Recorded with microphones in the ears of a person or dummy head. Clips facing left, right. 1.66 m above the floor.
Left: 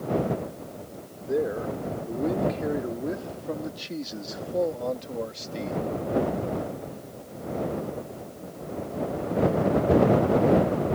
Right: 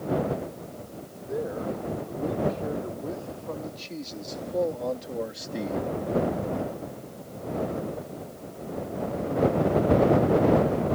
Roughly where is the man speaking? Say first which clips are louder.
Left 4 dB; left.